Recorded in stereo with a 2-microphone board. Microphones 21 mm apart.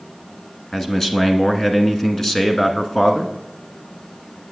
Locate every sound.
0.7 s a man speaking: 25° left (ahead or behind), 1.1 m